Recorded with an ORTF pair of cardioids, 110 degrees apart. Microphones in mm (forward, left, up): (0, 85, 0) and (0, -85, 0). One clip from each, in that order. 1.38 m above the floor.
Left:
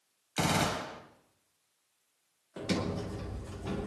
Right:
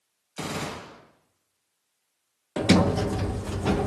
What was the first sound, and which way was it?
A gunshot, 50° left.